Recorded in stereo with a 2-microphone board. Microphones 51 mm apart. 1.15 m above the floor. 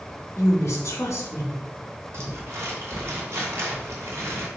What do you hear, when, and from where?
0.4 s a woman speaking: 80° left, 2.5 m
2.1 s crumpling: 60° right (ahead or behind), 2.5 m